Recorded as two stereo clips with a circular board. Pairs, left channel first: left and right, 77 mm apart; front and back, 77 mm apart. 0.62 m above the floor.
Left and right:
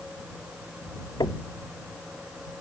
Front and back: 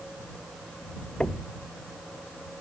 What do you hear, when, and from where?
1.2 s knocking: 75° left